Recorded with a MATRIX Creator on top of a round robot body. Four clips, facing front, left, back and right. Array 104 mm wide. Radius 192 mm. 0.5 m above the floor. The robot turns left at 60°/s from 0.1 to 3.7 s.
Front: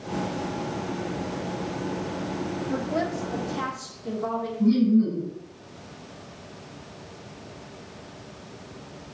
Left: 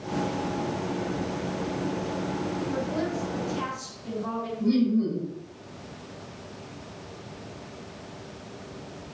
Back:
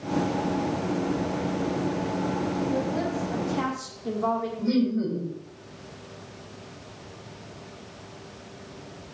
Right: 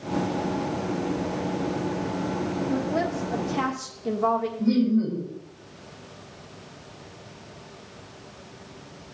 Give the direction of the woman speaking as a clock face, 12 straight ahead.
2 o'clock.